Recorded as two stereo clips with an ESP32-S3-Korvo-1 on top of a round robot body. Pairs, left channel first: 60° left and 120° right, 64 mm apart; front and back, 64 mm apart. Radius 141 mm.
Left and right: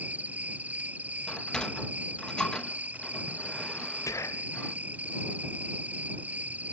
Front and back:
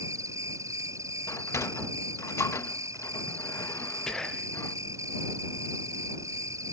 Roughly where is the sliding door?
Ahead.